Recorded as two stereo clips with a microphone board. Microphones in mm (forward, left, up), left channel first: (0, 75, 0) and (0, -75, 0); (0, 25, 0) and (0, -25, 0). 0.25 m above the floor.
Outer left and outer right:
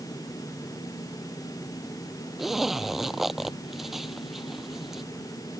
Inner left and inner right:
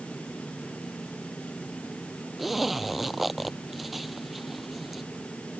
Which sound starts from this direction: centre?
A zipper, at 2.4 s.